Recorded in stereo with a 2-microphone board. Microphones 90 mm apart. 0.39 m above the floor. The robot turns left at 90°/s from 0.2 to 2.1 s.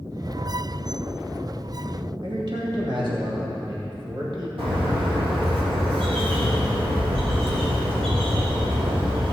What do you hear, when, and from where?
2.2 s a man speaking: 55° right (ahead or behind), 2.5 m
4.6 s a bird: 75° right (ahead or behind), 3.5 m